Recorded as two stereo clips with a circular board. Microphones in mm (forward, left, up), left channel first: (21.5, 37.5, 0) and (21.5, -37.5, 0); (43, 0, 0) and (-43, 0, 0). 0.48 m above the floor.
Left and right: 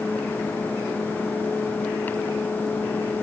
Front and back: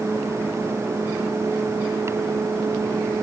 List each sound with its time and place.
Only background noise.